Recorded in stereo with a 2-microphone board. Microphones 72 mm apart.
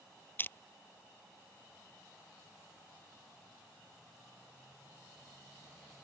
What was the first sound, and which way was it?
Crushing, 30° left (ahead or behind).